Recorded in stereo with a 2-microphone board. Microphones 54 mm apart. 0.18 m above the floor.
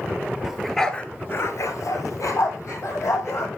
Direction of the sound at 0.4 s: 5° right (ahead or behind).